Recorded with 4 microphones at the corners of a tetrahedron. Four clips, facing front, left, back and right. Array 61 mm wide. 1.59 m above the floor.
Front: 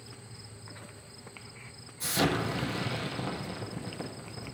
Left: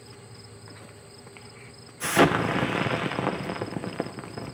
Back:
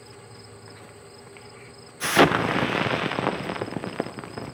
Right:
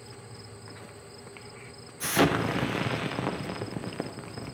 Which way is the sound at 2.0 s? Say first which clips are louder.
Left 4 dB, back 10 dB; 170° left.